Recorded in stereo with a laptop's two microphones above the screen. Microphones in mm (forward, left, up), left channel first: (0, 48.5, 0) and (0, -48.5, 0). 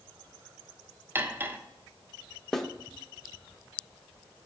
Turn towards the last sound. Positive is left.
turn(degrees=5)  # may be behind; listen again after turning